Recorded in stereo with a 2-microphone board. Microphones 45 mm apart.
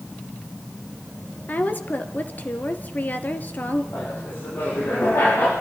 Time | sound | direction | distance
1.5 | a woman speaking | 40° left (ahead or behind) | 2.5 m
3.9 | laughter | 60° left (ahead or behind) | 9 m